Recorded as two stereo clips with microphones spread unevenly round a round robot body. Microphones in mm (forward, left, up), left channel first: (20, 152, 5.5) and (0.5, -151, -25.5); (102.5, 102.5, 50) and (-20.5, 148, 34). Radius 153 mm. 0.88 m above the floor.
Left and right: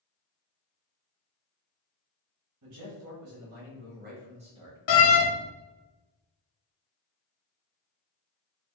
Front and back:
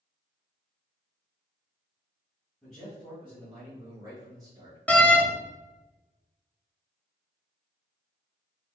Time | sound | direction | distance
2.6 | a man speaking | 110° right | 1.6 m
4.9 | a door slam | 65° left | 0.8 m